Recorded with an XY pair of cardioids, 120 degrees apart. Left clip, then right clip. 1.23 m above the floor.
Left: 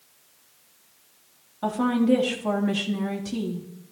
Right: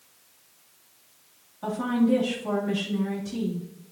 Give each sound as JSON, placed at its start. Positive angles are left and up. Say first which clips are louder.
{"t": 1.6, "sound": "a woman speaking", "louder": "left 2 dB", "azimuth_deg": 40, "distance_m": 3.0}